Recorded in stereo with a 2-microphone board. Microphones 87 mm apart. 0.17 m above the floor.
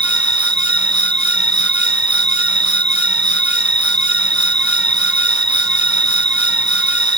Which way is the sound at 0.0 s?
60° right (ahead or behind).